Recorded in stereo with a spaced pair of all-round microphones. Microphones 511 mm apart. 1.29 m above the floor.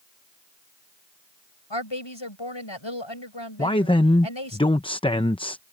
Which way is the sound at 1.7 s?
55° left (ahead or behind).